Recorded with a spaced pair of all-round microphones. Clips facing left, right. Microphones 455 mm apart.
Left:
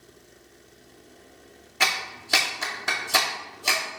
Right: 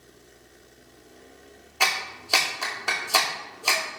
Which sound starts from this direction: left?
A clap, at 1.8 s.